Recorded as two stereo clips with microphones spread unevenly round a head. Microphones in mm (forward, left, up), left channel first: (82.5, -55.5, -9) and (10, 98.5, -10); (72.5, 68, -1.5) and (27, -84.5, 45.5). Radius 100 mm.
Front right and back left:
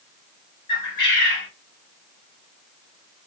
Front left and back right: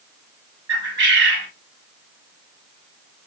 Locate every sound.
0.7 s a bird: 135° right, 1.2 m